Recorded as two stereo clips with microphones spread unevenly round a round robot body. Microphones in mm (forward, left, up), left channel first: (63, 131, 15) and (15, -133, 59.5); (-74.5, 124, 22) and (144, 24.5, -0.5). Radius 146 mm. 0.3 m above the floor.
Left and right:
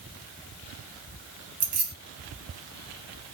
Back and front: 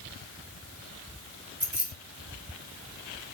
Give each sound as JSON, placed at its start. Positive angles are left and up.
{"t": 1.6, "sound": "keys jangling", "azimuth_deg": -90, "distance_m": 1.7}